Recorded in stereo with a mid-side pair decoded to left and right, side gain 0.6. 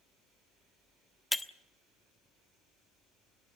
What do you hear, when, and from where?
1.3 s breaking glass: 10° left, 1.1 m